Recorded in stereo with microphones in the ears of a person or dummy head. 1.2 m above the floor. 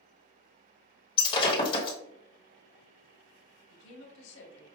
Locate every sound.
1.2 s breaking glass: 30° left (ahead or behind), 1.2 m
3.7 s a woman speaking: 70° left (ahead or behind), 1.2 m